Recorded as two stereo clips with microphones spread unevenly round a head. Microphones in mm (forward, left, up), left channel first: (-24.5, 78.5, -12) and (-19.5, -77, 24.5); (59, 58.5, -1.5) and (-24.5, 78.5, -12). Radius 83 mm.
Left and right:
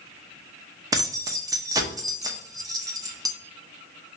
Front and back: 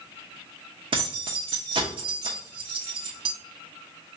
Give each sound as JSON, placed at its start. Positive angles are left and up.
{"t": 0.9, "sound": "keys jangling", "azimuth_deg": -150, "distance_m": 0.7}